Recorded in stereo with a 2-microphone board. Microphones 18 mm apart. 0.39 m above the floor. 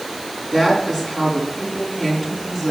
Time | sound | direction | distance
0.5 | a woman speaking | 20° left (ahead or behind) | 4.5 m